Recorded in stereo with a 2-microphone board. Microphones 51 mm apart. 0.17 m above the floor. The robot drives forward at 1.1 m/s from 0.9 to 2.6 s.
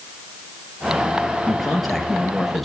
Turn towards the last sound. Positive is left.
turn(degrees=0)  # may be behind; listen again after turning